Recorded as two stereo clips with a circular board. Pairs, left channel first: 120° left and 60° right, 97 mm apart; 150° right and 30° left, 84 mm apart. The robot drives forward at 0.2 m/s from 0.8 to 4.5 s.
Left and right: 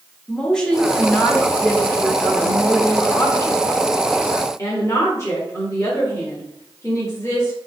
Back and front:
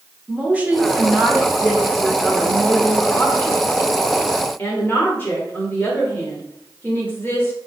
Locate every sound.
0.3 s a woman speaking: 55° left, 0.8 m; by 7.5 s 160° left, 1.0 m